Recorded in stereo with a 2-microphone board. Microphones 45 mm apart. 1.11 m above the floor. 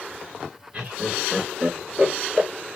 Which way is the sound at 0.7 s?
35° right (ahead or behind).